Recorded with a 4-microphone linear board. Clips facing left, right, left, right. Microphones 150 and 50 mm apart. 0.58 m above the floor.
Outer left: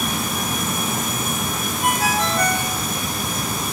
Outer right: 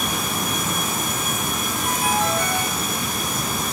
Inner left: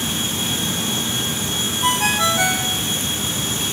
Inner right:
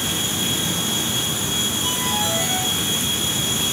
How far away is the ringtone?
About 3 m.